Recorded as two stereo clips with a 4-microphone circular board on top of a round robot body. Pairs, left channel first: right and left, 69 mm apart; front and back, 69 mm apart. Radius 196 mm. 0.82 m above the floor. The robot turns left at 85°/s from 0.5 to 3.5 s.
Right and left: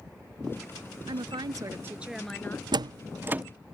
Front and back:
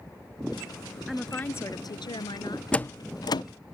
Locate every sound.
1.1 s a woman speaking: 95° left; by 2.6 s 35° right
2.7 s a door slam: 75° left; by 3.4 s 15° left